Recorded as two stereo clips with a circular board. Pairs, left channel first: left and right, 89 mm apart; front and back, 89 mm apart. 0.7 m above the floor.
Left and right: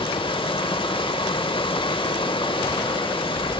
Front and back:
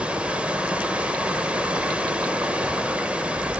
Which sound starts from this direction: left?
Running water, at 0.0 s.